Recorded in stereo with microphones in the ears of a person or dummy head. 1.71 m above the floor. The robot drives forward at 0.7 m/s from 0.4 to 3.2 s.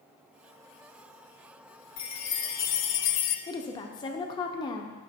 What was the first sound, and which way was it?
A chime, 30° left (ahead or behind).